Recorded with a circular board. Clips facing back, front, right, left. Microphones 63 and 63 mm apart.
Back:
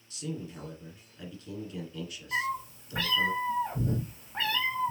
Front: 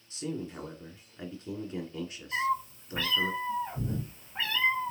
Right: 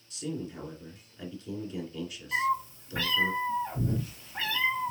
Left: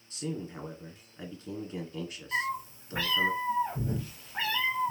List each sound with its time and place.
0.1 s a man speaking: 50° left, 1.6 m
2.3 s a cat meowing: 175° left, 2.5 m